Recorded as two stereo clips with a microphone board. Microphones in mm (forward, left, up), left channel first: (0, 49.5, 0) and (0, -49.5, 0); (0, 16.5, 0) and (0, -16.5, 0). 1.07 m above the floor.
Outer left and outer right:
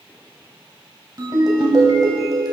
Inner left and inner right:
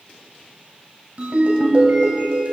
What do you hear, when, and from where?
1.2 s a ringtone: 40° right (ahead or behind), 2.5 m